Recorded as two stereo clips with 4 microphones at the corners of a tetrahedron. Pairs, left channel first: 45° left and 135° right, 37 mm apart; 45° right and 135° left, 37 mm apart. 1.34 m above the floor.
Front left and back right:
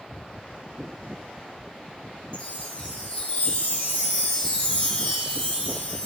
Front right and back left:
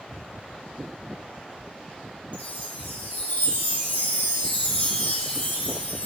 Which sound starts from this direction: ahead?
A chime, at 2.3 s.